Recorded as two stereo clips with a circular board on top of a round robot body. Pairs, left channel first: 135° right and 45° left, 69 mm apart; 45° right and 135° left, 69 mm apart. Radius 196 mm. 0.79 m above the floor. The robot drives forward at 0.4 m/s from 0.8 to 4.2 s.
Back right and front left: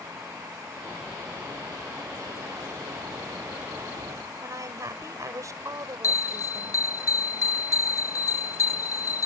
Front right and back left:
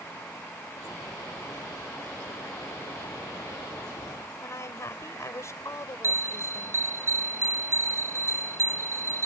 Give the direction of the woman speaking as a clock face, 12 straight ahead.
12 o'clock.